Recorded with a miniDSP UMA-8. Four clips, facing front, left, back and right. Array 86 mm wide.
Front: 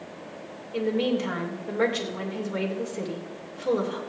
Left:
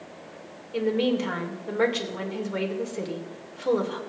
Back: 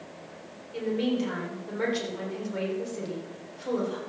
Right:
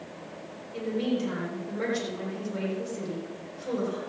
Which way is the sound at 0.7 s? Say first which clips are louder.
Left 5 dB, front 2 dB; 65° left.